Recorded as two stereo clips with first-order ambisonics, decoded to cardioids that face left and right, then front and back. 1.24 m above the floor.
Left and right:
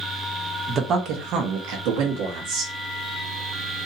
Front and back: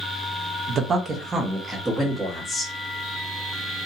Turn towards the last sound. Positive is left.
turn(degrees=-85)